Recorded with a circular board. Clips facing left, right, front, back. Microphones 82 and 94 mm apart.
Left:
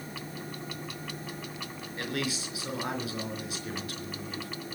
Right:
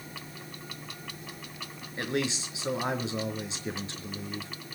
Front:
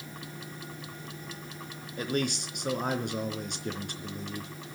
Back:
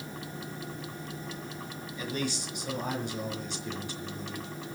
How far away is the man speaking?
About 4 m.